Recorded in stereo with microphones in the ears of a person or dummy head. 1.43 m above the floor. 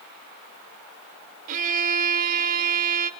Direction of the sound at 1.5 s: 45° right (ahead or behind).